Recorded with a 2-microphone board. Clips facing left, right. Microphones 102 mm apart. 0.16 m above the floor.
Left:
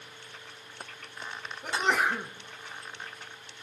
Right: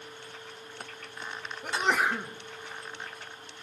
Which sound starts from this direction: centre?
A sneeze, at 1.6 s.